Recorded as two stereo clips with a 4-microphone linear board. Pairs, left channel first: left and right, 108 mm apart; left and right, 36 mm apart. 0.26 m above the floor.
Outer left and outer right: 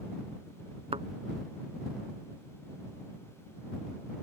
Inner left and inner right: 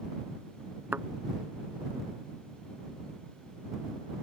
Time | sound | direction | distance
0.9 | a thud | 70° right (ahead or behind) | ?